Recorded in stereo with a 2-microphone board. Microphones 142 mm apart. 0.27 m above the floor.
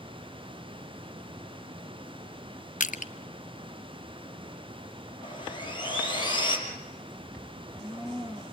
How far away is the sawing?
About 4.5 m.